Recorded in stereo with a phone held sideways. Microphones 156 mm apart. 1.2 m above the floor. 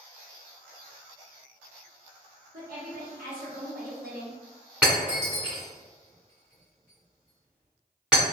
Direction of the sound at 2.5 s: 70° right (ahead or behind).